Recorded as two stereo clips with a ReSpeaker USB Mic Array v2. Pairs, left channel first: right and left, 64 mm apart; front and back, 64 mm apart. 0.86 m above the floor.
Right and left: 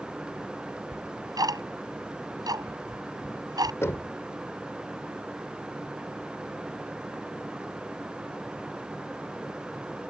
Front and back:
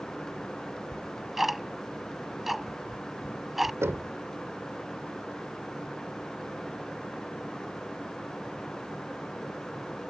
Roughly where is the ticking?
Left.